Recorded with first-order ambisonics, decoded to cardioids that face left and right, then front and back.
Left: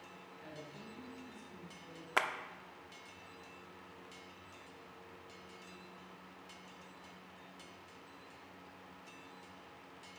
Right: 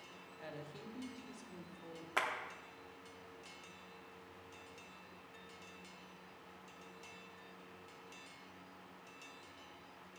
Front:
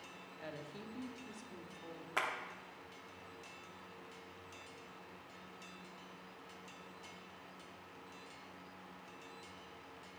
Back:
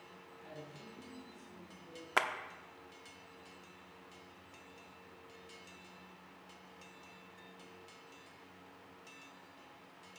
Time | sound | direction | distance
0.4 | a woman speaking | 30° right | 1.4 m
2.2 | a clap | 145° left | 0.6 m